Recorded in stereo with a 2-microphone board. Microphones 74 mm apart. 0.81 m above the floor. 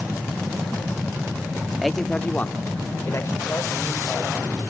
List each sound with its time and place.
1.8 s a man speaking: 5° right (ahead or behind), 1.1 m; by 4.4 s 50° left (ahead or behind), 4 m